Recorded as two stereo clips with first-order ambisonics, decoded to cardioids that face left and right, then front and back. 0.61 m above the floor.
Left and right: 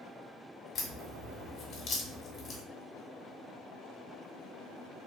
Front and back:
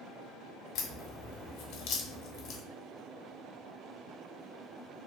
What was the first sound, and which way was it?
A crack, 30° left.